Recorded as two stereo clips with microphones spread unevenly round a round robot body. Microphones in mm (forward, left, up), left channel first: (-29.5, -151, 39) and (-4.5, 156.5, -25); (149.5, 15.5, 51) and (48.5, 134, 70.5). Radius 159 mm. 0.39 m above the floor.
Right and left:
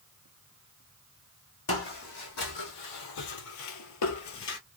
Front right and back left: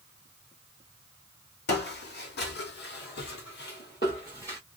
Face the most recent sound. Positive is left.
turn(degrees=-145)